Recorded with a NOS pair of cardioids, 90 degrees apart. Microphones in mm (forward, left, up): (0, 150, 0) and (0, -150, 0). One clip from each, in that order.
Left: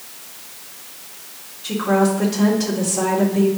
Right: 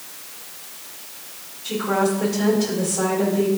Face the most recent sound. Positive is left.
turn(degrees=55)